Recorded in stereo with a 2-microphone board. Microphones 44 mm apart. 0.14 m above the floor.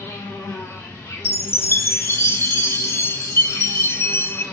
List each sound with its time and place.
0.0 s an insect: 70° left (ahead or behind), 2.5 m
1.2 s a chime: 60° left (ahead or behind), 0.8 m